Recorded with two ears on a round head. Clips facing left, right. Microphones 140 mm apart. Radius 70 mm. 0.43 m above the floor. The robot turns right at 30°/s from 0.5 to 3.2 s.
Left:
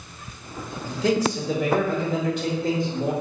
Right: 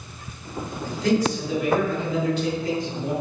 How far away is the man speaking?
About 0.9 m.